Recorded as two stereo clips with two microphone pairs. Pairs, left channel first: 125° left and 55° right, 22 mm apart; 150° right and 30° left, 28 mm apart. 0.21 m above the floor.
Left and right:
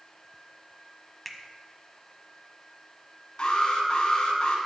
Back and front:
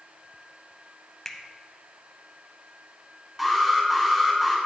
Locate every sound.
1.2 s a finger snap: 135° right, 0.8 m
3.4 s an alarm: 110° left, 2.0 m